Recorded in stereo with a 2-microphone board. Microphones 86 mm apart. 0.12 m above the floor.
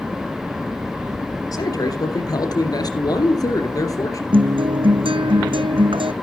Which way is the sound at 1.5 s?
45° left (ahead or behind).